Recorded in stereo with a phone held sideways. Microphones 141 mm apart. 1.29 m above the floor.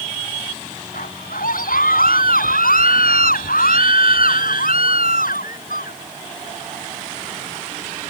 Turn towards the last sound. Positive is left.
turn(degrees=80)